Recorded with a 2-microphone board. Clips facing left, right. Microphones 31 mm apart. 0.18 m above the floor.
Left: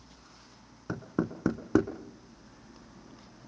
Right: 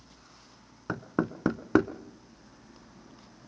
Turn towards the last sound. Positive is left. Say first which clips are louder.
# right 2 dB
turn(degrees=-35)  # may be behind; listen again after turning